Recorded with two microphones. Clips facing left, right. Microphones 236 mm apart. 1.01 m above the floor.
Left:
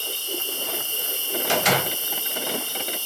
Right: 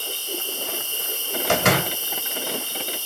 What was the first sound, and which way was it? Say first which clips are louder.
An insect: even; 55° left (ahead or behind).